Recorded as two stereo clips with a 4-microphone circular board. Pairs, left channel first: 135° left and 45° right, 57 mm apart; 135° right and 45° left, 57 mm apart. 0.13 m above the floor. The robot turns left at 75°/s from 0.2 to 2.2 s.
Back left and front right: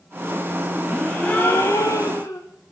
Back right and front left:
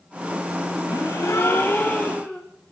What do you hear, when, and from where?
0.9 s a gasp: 130° right, 6 m; by 2.4 s 130° left, 6 m